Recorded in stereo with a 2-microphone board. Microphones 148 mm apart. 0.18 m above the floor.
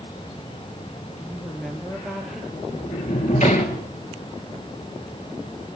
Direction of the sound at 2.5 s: 50° left (ahead or behind).